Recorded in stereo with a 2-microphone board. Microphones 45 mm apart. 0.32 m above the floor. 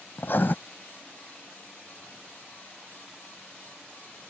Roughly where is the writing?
Left.